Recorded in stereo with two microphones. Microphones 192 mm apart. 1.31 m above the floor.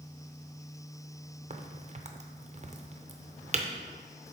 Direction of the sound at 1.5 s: 40° right (ahead or behind).